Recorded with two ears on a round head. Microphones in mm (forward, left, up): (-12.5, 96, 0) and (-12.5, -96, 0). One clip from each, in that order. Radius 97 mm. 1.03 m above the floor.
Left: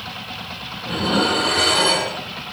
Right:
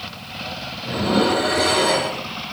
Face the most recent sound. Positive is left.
turn(degrees=80)